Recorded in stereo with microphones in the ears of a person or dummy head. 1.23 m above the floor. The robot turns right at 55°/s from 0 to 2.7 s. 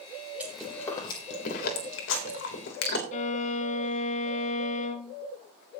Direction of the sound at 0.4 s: 10° right (ahead or behind).